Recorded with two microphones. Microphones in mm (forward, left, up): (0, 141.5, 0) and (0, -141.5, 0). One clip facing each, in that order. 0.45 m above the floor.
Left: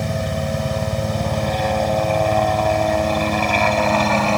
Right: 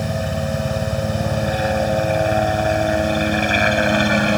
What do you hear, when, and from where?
0.0 s a helicopter: 5° right (ahead or behind); by 4.4 s 15° right (ahead or behind)